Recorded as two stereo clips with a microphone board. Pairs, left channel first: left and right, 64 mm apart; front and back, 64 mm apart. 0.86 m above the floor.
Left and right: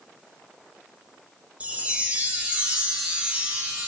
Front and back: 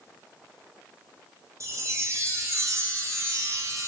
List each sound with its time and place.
1.6 s a chime: 155° right, 0.9 m